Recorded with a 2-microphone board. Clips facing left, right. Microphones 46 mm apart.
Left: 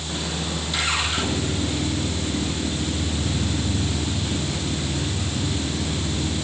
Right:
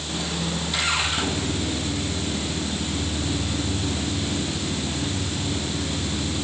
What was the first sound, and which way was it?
Only background noise.